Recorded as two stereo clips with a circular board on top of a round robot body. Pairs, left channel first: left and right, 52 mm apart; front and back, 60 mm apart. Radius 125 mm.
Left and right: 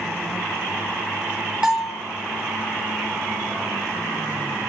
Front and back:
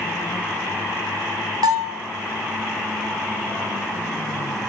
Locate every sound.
1.6 s a bell: 165° right, 0.6 m